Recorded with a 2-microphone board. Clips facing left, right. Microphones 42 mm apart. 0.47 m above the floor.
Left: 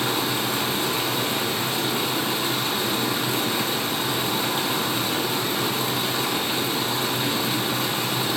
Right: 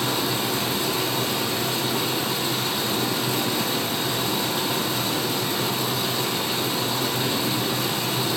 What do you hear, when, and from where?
0.0 s running water: 40° left (ahead or behind), 4 m